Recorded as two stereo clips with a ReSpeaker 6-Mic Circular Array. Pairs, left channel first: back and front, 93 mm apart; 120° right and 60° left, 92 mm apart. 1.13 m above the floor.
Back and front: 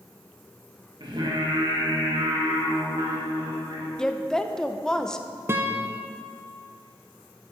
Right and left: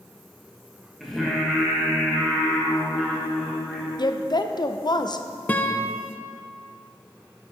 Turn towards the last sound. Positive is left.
turn(degrees=-55)